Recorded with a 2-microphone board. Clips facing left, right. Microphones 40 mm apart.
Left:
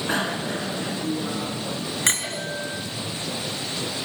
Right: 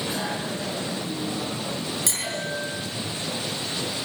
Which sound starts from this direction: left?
A bicycle bell, at 0.1 s.